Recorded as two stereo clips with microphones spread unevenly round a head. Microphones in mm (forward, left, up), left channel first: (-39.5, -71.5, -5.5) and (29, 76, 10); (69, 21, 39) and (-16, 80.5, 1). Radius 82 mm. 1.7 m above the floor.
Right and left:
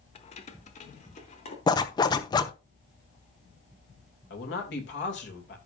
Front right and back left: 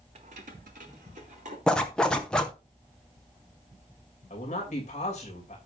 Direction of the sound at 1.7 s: 65° right.